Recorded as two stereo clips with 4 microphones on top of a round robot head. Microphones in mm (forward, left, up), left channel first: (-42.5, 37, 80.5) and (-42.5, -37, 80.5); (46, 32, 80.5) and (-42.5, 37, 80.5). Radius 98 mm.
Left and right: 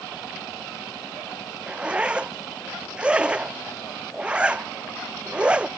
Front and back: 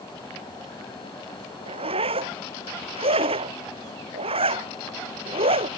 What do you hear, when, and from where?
1.7 s a zipper: 165° right